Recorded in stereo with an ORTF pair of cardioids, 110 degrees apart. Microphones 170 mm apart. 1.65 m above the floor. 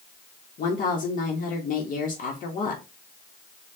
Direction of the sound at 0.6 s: 50° left.